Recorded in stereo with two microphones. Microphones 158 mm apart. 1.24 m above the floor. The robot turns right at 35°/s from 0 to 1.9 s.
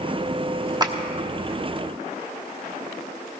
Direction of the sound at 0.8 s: 25° right (ahead or behind).